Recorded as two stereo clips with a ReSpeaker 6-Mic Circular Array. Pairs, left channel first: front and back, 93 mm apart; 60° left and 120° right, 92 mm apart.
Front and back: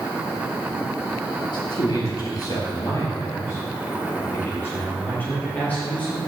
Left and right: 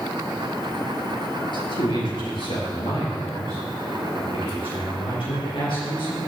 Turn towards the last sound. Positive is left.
turn(degrees=75)